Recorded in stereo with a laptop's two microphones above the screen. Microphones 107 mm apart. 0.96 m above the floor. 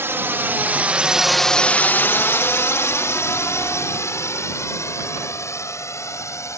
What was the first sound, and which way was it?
A drone, 20° right (ahead or behind).